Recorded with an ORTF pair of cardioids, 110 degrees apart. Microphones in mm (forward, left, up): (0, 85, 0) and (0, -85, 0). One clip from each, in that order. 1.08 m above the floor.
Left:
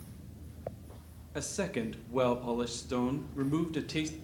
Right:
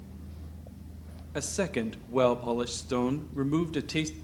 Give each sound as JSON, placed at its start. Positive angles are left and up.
{"t": 1.4, "sound": "a man speaking", "azimuth_deg": -25, "distance_m": 1.4}